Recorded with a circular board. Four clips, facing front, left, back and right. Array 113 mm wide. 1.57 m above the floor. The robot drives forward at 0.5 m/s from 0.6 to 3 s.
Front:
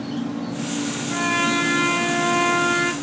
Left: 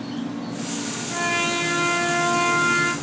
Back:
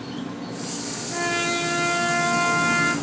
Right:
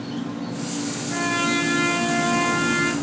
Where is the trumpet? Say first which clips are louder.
Right 1 dB, front 3 dB; straight ahead, 2 m.